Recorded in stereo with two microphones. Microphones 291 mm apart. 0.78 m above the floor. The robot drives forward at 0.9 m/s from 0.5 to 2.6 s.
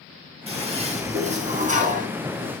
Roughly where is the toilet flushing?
Right.